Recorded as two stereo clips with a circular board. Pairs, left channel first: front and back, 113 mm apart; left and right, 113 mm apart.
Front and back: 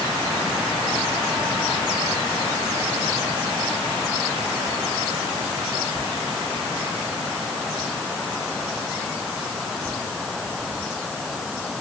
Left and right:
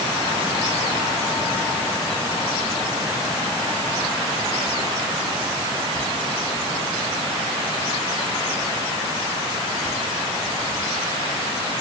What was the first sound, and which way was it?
Only background noise.